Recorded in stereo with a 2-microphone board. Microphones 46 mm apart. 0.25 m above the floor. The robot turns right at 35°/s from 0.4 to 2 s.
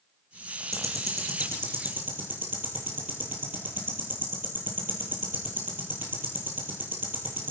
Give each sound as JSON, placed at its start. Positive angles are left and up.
{"t": 0.7, "sound": "ticking", "side_deg": -80, "distance_m": 3.0}